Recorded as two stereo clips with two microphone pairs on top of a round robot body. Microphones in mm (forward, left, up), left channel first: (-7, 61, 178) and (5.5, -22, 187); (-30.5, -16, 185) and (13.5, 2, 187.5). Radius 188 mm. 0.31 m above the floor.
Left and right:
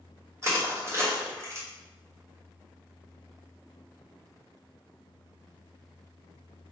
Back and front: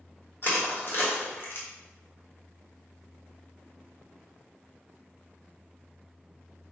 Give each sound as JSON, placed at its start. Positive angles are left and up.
{"t": 0.4, "sound": "crushing", "azimuth_deg": -135, "distance_m": 1.5}